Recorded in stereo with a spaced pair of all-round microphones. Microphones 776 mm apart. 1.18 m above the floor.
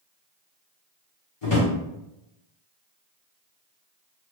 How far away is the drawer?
About 1.4 m.